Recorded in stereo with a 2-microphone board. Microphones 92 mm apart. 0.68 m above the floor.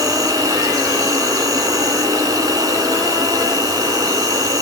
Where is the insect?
40° right (ahead or behind), 1.9 m.